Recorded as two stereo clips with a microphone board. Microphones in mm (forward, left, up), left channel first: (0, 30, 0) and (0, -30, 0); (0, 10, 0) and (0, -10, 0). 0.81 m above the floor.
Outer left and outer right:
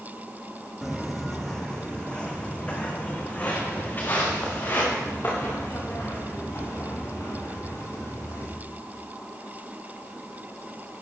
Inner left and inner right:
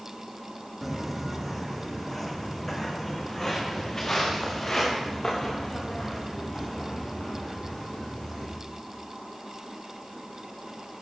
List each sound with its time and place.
0.8 s footsteps: 5° right (ahead or behind), 2 m; by 8.5 s 50° left (ahead or behind), 7 m